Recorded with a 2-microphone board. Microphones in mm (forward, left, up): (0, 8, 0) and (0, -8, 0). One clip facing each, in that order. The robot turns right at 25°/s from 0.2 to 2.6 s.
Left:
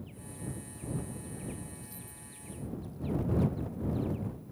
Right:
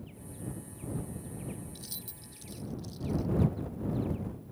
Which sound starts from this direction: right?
Keys jangling, at 1.8 s.